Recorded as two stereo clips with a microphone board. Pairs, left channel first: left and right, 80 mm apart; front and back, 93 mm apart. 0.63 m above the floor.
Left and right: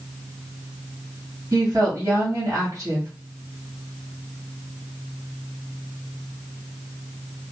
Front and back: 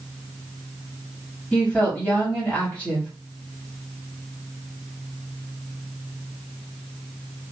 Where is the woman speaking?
65° right, 1.6 m.